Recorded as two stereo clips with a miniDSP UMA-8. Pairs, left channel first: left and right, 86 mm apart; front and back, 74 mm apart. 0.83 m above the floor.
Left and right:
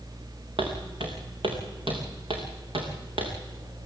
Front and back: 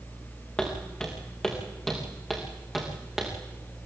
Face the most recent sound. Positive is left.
turn(degrees=-95)